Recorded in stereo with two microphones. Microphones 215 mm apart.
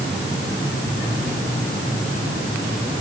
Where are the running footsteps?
I don't hear running footsteps.